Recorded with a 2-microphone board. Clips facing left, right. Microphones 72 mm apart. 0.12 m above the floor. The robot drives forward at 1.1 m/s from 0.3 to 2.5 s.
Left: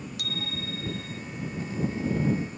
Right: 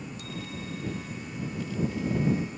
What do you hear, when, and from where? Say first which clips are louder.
0.2 s a bicycle bell: left 4 dB; 75° left (ahead or behind)